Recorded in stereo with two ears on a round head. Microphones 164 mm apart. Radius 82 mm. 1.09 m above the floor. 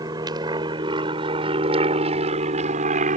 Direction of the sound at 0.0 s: 25° right (ahead or behind).